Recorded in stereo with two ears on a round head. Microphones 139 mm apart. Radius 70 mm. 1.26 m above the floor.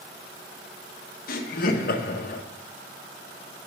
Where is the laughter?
65° left (ahead or behind), 1.1 m.